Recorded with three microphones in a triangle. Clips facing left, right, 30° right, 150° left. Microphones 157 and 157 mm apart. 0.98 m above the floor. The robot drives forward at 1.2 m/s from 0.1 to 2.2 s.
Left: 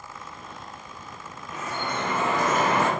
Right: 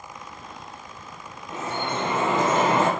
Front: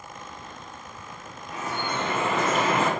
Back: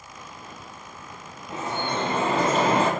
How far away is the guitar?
I don't hear a guitar.